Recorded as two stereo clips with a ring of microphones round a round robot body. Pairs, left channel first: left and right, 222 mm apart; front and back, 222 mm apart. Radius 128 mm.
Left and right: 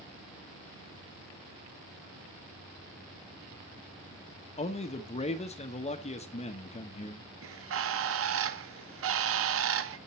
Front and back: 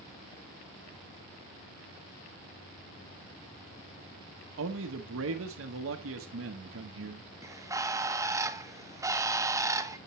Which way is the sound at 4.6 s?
150° left.